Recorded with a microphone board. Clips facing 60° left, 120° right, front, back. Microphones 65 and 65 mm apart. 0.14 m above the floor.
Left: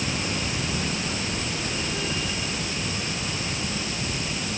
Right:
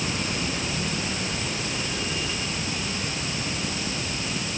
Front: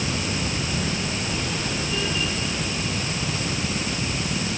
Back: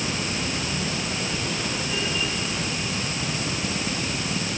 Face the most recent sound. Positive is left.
No sound to turn to.